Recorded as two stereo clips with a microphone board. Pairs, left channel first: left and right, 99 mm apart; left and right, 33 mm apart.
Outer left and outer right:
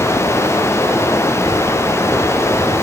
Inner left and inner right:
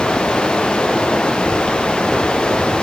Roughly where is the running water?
Left.